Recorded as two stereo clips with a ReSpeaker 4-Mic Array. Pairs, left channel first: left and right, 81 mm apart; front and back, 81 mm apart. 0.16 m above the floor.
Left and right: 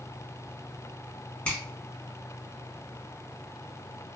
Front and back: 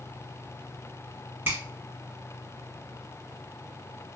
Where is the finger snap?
145° left, 1.5 m.